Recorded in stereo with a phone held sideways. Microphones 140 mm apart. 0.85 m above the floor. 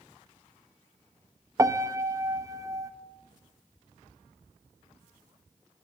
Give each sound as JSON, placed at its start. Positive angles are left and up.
{"t": 1.6, "sound": "a piano", "side_deg": -25, "distance_m": 1.0}